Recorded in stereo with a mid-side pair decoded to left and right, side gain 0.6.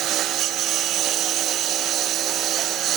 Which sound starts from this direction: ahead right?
A lawn mower, at 0.0 s.